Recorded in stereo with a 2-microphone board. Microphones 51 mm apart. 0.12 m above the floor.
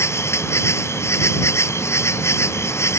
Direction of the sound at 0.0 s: 70° left (ahead or behind).